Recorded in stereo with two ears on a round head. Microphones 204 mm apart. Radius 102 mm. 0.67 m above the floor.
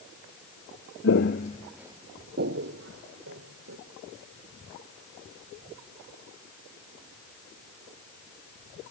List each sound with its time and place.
1.0 s footsteps: 55° left (ahead or behind), 1.1 m; by 3.8 s 60° right (ahead or behind), 3 m